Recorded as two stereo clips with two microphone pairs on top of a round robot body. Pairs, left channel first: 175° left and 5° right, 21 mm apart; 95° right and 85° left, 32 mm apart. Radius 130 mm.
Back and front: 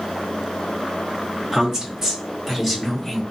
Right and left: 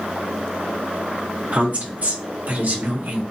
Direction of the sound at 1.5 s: 55° left.